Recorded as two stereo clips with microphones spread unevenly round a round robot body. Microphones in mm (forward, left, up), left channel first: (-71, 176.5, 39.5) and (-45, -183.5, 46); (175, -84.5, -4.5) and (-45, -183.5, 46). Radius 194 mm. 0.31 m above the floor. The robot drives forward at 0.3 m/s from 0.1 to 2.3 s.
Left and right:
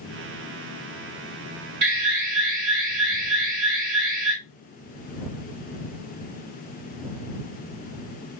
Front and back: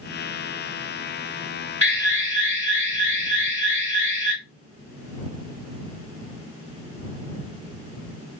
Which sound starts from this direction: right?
An alarm, at 1.8 s.